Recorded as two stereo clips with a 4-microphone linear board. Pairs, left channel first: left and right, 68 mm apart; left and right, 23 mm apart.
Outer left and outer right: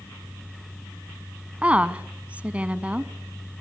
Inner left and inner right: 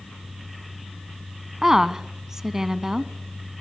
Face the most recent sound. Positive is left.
turn(degrees=-20)  # may be behind; listen again after turning